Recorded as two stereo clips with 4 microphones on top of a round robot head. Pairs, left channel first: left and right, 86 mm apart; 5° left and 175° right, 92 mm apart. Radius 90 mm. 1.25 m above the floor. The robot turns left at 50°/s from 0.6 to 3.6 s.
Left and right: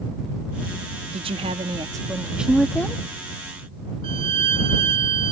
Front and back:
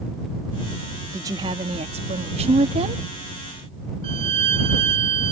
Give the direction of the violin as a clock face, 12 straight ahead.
4 o'clock.